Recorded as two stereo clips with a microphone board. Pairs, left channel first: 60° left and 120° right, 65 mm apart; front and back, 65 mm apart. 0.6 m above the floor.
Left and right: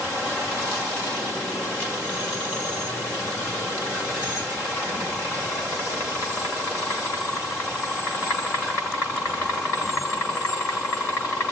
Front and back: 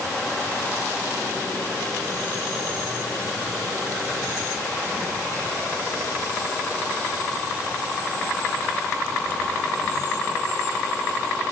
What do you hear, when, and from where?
Only background noise.